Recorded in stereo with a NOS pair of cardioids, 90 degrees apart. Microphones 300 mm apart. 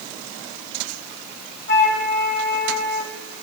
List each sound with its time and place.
1.7 s a flute: 35° left, 1.7 m